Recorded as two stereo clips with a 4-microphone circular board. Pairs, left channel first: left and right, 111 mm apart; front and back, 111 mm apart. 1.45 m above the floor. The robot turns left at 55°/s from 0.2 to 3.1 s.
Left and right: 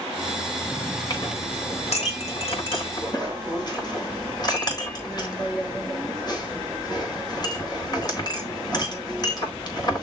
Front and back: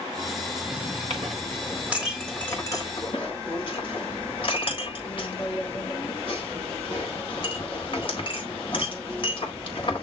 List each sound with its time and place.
1.1 s a clink: 150° left, 4 m; by 10.0 s 40° left, 4 m